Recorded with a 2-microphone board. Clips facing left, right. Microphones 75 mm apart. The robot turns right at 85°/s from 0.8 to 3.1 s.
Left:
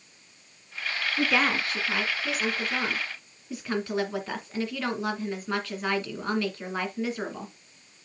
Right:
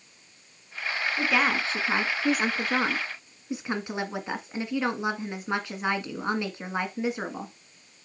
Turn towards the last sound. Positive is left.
turn(degrees=-25)